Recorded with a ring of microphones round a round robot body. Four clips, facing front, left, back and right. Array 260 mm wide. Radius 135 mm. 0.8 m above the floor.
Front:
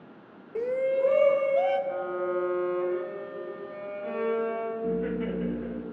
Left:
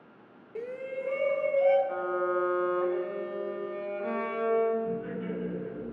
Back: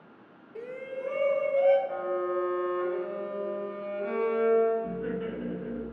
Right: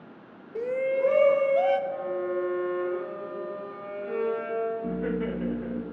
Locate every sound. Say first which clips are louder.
0.6 s a shout: right 10 dB, front 11 dB; 20° right, 0.5 m; by 1.8 s 60° right, 1.8 m
1.9 s a violin: even, even; 90° left, 6 m
4.8 s laughter: right 4 dB, front 4 dB; 70° right, 2 m